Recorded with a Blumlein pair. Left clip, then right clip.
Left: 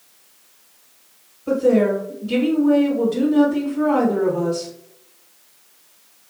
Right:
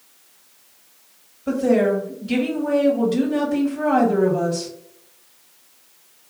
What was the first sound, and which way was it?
A woman speaking, 70° right.